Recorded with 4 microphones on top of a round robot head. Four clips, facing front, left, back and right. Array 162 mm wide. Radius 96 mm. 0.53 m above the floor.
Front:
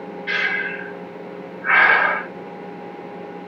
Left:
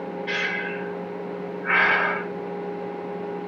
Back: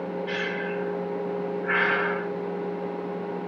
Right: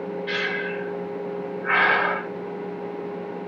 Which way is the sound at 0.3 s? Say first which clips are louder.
Right 1 dB, front 4 dB; 20° right.